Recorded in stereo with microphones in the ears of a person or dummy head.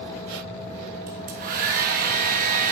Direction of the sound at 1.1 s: 45° right (ahead or behind).